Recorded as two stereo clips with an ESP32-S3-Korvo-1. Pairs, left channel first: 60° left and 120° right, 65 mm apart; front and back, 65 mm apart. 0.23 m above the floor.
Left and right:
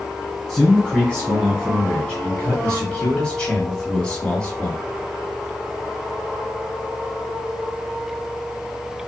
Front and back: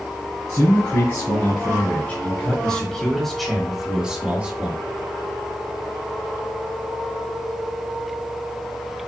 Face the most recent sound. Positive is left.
turn(degrees=130)